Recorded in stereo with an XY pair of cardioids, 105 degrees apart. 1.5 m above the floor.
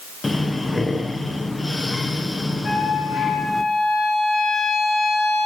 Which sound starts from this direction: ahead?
Breathing, at 0.2 s.